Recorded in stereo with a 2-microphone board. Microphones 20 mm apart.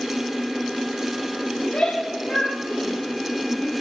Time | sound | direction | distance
1.6 | a shout | 80° left | 6 m